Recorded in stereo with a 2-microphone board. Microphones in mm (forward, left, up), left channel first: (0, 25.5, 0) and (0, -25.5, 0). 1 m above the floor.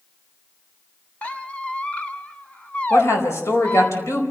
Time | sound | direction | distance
1.2 | a squeak | 20° left (ahead or behind) | 1.2 m
2.9 | a woman speaking | 60° left (ahead or behind) | 4.5 m